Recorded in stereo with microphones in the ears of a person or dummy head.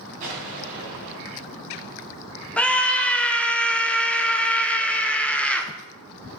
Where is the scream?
5° left (ahead or behind), 0.6 m.